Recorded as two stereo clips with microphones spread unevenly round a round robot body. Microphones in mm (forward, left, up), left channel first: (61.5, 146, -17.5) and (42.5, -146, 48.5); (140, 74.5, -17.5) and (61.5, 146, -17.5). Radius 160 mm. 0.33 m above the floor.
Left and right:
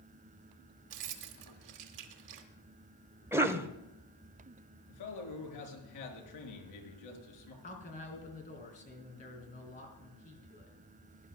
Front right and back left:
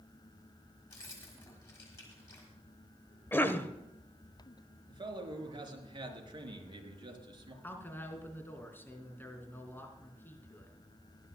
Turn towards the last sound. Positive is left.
turn(degrees=25)